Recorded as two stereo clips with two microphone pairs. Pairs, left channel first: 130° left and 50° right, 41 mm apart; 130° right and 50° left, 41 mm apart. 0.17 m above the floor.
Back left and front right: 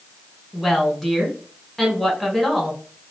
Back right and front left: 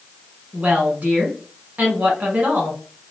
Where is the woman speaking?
50° left, 1.4 m.